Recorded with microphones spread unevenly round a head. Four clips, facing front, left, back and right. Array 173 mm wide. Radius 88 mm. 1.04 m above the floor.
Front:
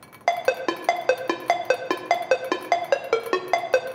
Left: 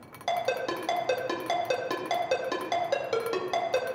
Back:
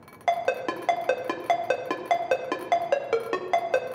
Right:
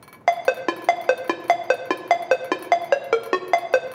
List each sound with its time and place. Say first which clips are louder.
0.3 s a ringtone: right 8 dB, front 3 dB; 55° right, 0.7 m